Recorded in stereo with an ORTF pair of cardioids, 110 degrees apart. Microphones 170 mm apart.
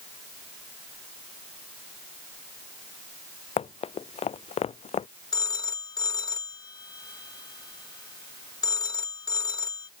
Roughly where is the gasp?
No gasp in this recording.